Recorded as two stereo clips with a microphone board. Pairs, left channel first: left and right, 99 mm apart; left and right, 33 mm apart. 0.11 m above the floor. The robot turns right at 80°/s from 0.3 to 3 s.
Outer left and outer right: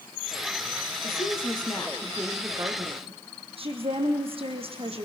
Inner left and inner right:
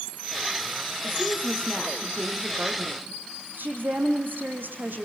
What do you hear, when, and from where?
1.0 s a woman speaking: 90° left, 4 m; by 5.1 s 115° right, 4 m